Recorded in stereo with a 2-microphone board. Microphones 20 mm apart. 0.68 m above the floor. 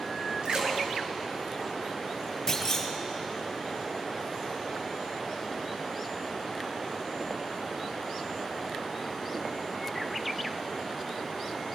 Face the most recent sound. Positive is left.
turn(degrees=30)  # may be behind; listen again after turning